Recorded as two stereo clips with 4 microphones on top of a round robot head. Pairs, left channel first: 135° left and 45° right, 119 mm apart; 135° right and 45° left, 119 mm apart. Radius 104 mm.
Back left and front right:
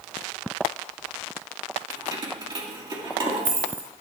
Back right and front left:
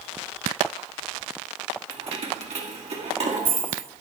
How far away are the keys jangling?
About 1.8 m.